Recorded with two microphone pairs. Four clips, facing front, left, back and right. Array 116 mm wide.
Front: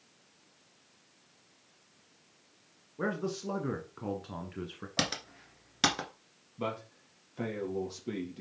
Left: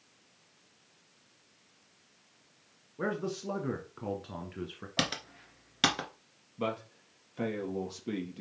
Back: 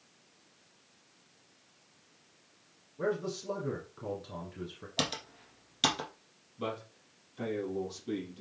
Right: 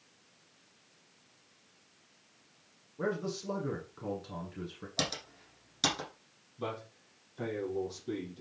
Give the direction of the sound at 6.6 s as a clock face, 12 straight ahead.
10 o'clock.